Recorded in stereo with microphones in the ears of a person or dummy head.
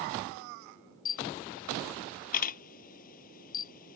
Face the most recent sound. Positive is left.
turn(degrees=50)  # may be behind; listen again after turning